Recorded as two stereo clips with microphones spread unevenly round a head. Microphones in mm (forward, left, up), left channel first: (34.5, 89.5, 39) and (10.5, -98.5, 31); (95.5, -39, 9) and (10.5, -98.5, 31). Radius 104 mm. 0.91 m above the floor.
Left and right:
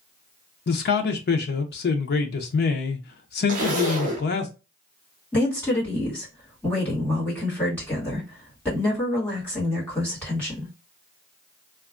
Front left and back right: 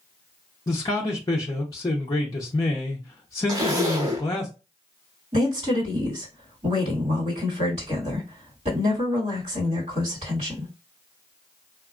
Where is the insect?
I don't hear an insect.